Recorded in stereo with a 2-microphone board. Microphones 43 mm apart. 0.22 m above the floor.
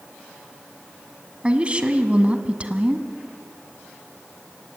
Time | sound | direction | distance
1.4 | a woman speaking | 25° right (ahead or behind) | 1.5 m